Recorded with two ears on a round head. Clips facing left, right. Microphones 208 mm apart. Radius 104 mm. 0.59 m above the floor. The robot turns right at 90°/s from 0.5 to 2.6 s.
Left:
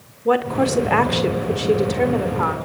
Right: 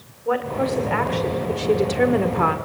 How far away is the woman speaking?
About 1.8 m.